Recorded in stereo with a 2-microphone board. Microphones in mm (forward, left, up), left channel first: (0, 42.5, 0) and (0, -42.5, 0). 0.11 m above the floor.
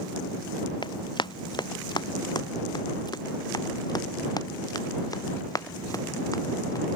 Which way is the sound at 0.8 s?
65° left (ahead or behind).